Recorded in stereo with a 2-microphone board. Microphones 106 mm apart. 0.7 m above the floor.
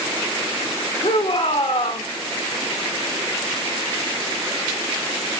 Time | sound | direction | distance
1.0 | a shout | 70° left (ahead or behind) | 2 m